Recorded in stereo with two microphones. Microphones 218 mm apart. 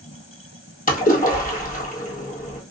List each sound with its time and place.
0.9 s a splash: 40° left (ahead or behind), 1.3 m